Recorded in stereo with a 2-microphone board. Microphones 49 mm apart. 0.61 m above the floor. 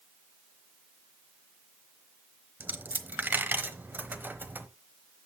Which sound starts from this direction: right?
A dropped coin, at 2.6 s.